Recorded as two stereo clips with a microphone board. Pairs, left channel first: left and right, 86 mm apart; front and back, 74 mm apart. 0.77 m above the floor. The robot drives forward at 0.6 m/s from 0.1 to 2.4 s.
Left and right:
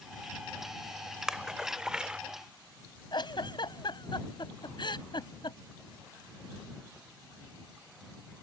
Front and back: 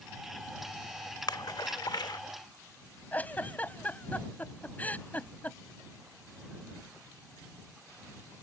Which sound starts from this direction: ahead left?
A giggle, at 3.1 s.